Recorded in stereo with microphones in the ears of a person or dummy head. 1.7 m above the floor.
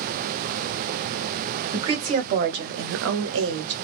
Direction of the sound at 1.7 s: 25° right (ahead or behind).